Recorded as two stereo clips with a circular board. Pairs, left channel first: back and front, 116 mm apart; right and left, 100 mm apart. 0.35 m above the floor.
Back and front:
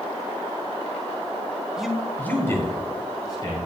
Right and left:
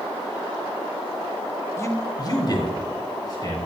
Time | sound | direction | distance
1.8 | a man speaking | 80° right | 0.9 m